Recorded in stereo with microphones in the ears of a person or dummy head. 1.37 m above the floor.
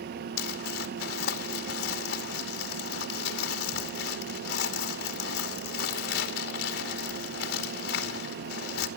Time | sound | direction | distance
0.4 | crumpling | 80° left | 2.5 m